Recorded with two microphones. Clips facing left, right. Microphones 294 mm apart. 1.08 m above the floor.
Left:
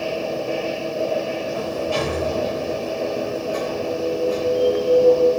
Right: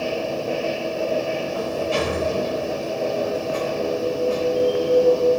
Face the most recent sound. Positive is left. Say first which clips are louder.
# even
turn(degrees=-25)  # may be behind; listen again after turning